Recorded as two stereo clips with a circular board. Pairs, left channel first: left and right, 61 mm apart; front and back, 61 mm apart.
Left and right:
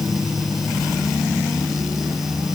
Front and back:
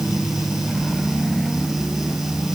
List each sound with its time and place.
Only background noise.